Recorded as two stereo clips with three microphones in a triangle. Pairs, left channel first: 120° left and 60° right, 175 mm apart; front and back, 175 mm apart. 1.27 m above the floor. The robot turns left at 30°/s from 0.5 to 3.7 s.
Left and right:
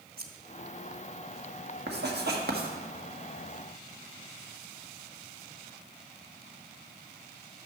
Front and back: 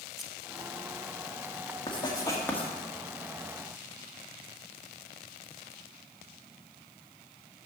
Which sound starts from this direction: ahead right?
Writing, at 1.9 s.